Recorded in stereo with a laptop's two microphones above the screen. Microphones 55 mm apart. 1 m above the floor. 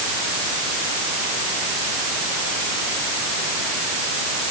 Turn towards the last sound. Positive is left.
No sound to turn to.